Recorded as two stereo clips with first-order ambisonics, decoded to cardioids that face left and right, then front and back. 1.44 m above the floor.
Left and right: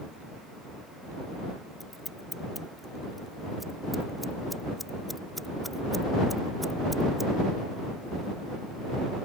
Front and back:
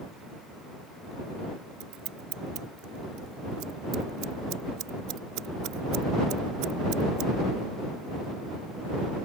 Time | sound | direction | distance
1.8 | scissors | straight behind | ?